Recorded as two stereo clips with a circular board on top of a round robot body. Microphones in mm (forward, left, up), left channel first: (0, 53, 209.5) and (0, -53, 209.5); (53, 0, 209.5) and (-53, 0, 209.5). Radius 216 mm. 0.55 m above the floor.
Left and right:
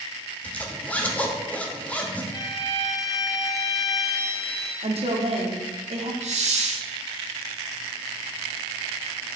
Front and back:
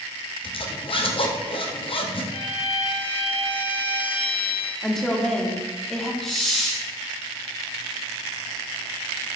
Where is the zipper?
15° left, 1.2 m.